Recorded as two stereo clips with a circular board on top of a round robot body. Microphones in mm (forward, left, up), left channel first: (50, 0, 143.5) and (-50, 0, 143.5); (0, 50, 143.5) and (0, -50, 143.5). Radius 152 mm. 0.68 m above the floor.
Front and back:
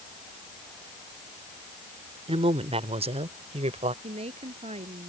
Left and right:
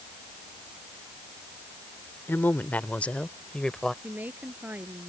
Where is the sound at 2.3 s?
160° left; by 3.9 s 175° left.